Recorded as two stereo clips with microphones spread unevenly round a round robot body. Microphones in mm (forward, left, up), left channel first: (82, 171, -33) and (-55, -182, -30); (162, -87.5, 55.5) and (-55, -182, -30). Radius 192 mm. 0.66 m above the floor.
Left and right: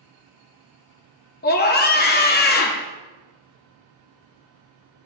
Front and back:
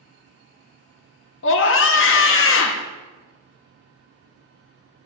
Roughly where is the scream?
Ahead left.